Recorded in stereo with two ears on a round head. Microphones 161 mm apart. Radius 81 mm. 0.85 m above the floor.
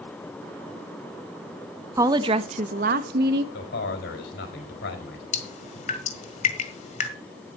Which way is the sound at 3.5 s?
70° left (ahead or behind).